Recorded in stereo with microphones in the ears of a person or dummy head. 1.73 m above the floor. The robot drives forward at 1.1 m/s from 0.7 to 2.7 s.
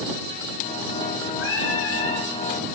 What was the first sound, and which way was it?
Singing, 85° left.